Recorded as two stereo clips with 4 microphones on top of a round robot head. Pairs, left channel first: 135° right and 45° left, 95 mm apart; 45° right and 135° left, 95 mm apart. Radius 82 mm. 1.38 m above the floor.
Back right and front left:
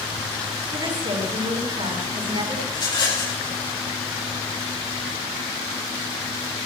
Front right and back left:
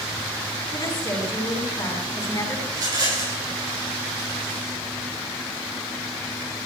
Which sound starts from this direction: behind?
A rattle, at 2.7 s.